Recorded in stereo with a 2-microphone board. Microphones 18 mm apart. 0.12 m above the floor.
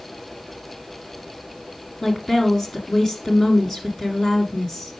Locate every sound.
2.0 s a woman speaking: 30° left (ahead or behind), 1.6 m